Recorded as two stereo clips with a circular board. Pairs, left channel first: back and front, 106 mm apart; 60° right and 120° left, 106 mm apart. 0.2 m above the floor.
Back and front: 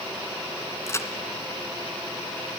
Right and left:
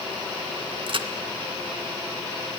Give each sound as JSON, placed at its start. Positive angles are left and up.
{"t": 0.9, "sound": "a crack", "azimuth_deg": 125, "distance_m": 1.8}